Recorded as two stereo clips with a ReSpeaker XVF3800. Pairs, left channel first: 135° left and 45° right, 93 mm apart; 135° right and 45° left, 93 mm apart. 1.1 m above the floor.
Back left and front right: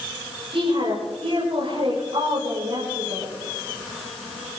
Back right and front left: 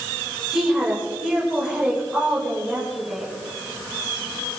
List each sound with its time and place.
0.5 s a woman speaking: 40° right, 5 m